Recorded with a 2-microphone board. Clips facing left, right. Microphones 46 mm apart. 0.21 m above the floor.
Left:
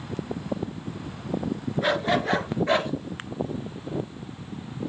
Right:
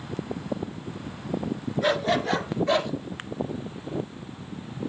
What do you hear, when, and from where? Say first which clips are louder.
1.8 s a dog barking: even; 10° left (ahead or behind), 1.5 m; by 2.9 s 30° left (ahead or behind), 1.8 m